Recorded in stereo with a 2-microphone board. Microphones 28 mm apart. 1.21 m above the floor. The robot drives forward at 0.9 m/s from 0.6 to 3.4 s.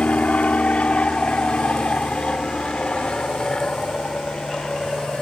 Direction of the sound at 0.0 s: 50° left (ahead or behind).